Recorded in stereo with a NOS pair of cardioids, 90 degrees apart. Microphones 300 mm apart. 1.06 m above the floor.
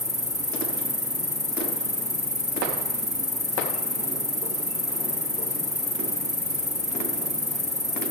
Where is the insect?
10° left, 1.2 m.